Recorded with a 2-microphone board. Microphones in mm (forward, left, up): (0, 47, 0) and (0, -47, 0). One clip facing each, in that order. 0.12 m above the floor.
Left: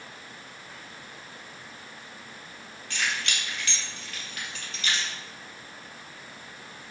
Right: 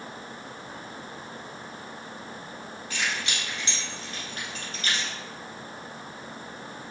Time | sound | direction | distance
2.9 | keys jangling | 5° right (ahead or behind) | 2.5 m